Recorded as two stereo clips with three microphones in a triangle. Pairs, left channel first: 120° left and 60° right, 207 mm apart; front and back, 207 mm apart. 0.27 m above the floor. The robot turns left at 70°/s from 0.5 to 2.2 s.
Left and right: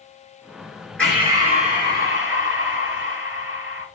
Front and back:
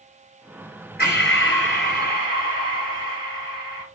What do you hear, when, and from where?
1.0 s breathing: 35° left, 3.5 m; by 3.9 s 45° right, 3.5 m